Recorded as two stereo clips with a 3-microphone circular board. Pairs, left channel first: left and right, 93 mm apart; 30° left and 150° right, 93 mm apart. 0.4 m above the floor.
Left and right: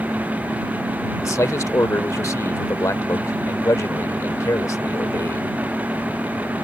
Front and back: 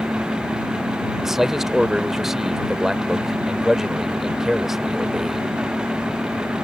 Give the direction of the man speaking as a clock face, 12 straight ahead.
8 o'clock.